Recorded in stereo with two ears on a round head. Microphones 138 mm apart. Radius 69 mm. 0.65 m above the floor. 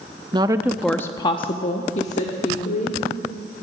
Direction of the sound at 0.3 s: 30° right (ahead or behind).